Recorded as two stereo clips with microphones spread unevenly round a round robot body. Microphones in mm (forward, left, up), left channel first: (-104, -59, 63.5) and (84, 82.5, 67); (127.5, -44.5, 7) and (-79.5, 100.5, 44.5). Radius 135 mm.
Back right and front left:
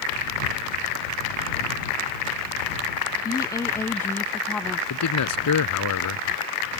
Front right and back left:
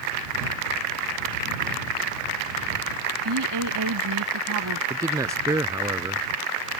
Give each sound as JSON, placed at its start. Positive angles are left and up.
{"t": 3.2, "sound": "a woman speaking", "azimuth_deg": 145}
{"t": 4.9, "sound": "a man speaking", "azimuth_deg": -135}